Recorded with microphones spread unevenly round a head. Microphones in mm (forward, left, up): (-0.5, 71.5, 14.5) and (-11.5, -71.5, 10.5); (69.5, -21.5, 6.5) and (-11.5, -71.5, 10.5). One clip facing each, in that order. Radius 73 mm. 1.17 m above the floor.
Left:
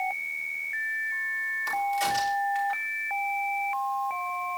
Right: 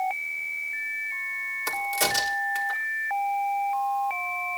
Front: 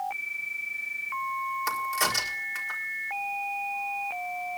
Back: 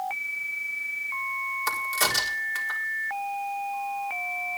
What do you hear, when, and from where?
1.7 s a crack: 65° right, 4 m